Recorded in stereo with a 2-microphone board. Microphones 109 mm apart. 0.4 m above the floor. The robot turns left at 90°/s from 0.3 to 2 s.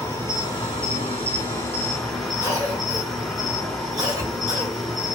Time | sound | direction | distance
0.0 | an insect | 155° left | 1.3 m
2.4 | a cough | 35° right (ahead or behind) | 1.0 m